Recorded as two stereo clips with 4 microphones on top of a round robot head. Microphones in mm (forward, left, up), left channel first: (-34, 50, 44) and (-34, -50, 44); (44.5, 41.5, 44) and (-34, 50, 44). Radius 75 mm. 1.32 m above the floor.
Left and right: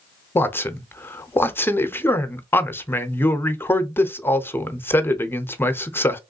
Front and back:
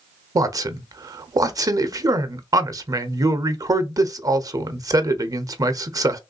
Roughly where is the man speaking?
Behind left.